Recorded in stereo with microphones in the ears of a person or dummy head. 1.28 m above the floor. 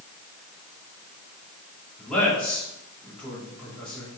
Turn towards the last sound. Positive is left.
turn(degrees=5)  # may be behind; listen again after turning